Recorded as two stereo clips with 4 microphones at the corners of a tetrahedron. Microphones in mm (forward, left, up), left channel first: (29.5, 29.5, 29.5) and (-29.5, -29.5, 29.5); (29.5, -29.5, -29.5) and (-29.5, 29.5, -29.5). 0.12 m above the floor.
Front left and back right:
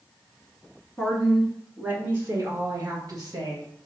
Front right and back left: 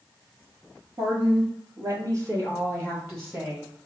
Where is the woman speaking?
125° left, 1.8 m; by 3.7 s 165° right, 3 m.